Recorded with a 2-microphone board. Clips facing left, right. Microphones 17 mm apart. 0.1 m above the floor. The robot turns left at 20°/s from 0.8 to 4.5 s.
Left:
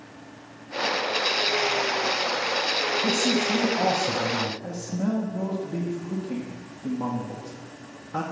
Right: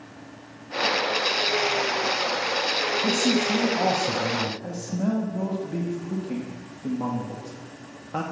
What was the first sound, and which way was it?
A man speaking, 50° right (ahead or behind).